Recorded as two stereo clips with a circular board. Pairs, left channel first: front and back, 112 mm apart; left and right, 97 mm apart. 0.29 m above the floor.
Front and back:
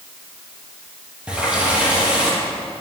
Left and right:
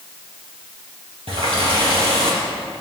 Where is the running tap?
100° right, 4.5 m.